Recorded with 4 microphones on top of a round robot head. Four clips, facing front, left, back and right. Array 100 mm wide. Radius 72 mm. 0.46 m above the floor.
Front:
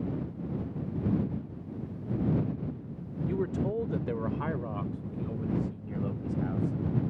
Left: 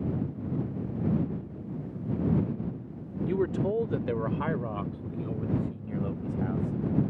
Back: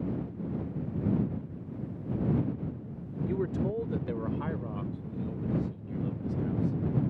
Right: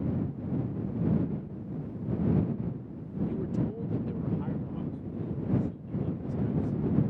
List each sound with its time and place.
3.3 s a man speaking: 95° left; by 6.8 s 55° left